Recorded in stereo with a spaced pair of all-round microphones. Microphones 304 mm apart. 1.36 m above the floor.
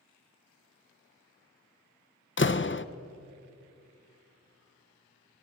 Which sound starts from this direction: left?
A door slam, at 2.4 s.